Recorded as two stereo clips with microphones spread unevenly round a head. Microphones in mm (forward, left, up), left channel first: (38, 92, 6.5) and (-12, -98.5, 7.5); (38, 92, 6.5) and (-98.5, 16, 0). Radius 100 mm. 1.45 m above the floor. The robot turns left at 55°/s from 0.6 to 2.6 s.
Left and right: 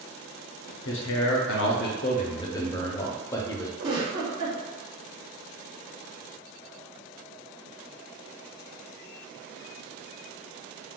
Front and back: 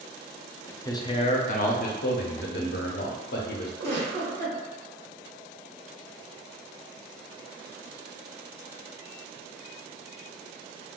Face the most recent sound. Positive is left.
turn(degrees=-145)